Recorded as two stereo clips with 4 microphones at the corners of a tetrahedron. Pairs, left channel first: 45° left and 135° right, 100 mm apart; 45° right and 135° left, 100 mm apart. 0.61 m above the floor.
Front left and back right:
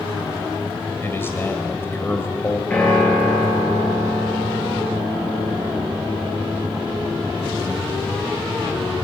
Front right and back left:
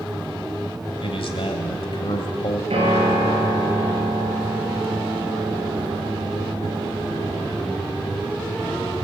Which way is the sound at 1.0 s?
20° right.